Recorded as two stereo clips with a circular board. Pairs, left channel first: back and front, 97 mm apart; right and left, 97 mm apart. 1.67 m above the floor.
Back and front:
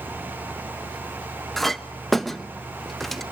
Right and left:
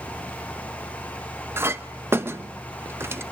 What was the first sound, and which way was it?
A clink, 90° left.